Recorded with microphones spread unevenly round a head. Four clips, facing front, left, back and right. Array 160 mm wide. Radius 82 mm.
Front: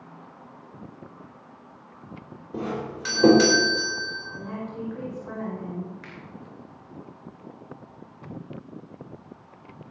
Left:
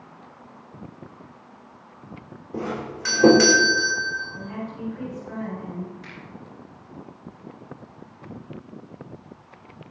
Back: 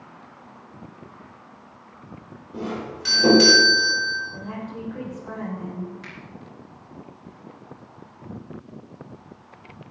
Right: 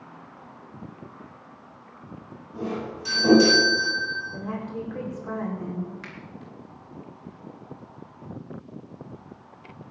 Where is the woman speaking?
100° right, 5 m.